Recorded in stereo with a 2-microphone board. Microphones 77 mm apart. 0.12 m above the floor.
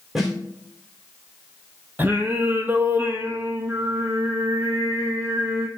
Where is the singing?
25° right (ahead or behind), 0.6 m.